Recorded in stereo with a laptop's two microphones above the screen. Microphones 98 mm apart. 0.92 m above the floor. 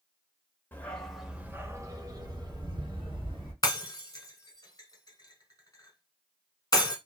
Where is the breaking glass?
40° left (ahead or behind), 1.0 m.